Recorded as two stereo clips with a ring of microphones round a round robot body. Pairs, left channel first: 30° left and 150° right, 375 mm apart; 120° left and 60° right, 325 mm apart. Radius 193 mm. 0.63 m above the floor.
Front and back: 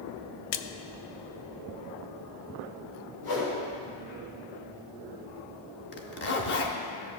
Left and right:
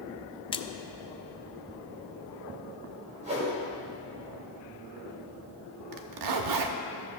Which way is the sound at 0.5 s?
45° left.